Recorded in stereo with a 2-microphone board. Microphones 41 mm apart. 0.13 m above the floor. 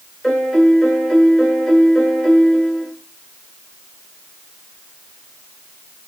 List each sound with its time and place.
0.2 s a piano: 5° left (ahead or behind), 1.3 m